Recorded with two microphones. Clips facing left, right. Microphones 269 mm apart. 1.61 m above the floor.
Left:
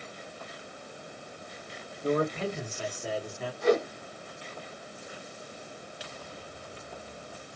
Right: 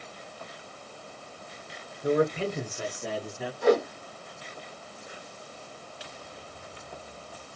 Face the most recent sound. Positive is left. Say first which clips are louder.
# right 2 dB
turn(degrees=-65)  # may be behind; listen again after turning